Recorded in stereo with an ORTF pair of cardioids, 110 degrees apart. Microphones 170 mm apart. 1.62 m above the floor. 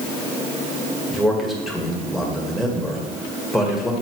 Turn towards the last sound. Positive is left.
turn(degrees=0)